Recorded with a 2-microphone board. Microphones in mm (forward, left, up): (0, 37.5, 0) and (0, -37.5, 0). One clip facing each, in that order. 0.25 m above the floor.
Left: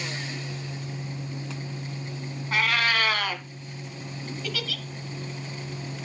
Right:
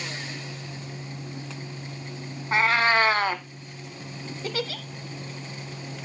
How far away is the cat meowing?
About 0.6 m.